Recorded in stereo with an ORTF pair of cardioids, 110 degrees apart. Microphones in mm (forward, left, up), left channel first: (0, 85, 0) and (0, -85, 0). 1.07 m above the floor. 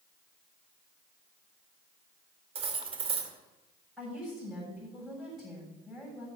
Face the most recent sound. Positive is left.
turn(degrees=0)